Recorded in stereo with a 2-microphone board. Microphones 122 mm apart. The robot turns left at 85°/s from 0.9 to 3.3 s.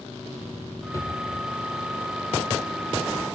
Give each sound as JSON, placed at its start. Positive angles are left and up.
{"t": 0.9, "sound": "a drawer", "side_deg": 25, "distance_m": 1.6}